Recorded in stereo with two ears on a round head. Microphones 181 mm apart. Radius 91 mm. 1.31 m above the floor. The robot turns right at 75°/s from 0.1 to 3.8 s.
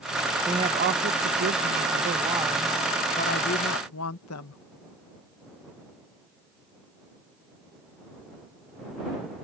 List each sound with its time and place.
0.5 s a woman speaking: 165° right; by 4.6 s 85° left